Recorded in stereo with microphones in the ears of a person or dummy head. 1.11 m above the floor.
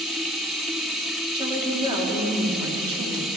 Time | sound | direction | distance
0.0 | running water | centre (ahead or behind) | 1.6 m
1.3 | a woman speaking | 30° right (ahead or behind) | 2.5 m